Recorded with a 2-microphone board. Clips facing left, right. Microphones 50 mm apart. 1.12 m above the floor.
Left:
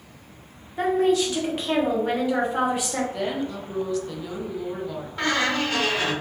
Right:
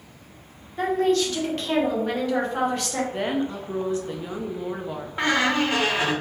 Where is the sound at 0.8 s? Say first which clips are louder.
Left 1 dB; 10° left (ahead or behind), 1.2 m.